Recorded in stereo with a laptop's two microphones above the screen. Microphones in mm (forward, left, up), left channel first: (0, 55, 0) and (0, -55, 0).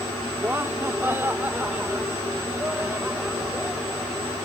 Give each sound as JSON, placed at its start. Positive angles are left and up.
{"t": 0.4, "sound": "laughter", "side_deg": -25}